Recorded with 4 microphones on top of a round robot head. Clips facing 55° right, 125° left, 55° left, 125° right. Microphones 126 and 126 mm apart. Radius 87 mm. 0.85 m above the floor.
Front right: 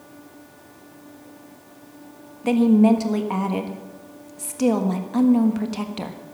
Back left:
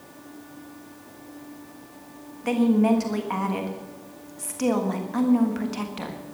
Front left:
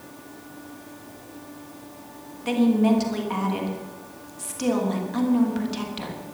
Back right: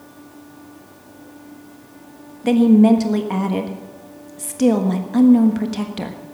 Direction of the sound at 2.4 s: 115° right.